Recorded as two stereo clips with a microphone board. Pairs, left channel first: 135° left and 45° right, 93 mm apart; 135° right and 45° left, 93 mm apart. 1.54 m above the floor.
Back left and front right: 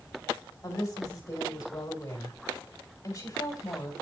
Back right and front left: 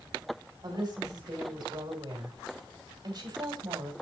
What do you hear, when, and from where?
0.6 s a woman speaking: 85° left, 2.5 m